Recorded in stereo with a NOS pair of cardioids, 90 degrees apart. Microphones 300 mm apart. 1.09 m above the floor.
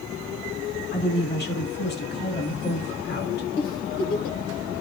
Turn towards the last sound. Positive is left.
turn(degrees=70)